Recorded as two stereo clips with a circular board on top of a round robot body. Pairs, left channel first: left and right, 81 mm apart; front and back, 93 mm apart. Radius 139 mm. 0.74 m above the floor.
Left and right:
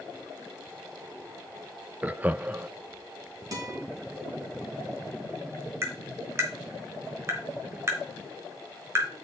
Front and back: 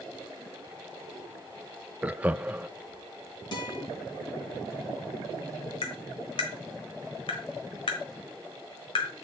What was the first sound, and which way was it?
Laughter, 130° right.